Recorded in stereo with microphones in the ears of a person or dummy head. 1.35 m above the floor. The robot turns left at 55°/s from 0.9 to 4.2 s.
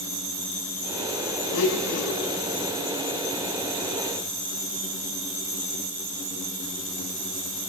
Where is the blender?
115° left, 7 m; by 2.4 s 70° left, 7 m.